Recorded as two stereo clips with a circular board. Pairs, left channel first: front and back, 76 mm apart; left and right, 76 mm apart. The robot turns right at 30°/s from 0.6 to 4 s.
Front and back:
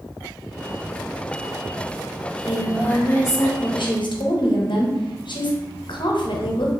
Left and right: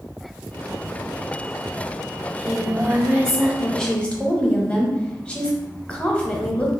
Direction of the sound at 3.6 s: Straight ahead.